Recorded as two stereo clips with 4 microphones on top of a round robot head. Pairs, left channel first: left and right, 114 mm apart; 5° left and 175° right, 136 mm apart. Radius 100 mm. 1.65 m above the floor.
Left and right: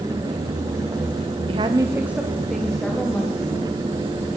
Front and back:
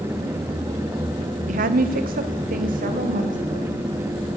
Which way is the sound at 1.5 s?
140° right.